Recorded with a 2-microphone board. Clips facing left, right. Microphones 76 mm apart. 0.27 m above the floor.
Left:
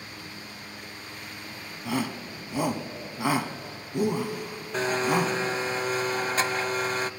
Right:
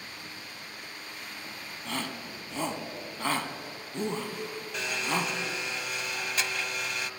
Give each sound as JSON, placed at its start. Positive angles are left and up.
{"t": 1.9, "sound": "a shout", "side_deg": 10, "distance_m": 1.8}
{"t": 4.7, "sound": "a blender", "side_deg": 40, "distance_m": 0.7}